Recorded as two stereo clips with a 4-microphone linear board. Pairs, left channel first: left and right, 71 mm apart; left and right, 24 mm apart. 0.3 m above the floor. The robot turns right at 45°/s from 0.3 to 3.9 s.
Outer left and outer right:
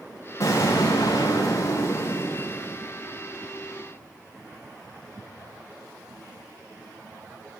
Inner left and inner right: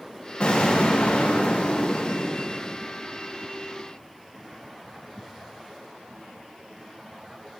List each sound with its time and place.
0.4 s an explosion: 55° left, 6.5 m; by 2.8 s 160° left, 6.5 m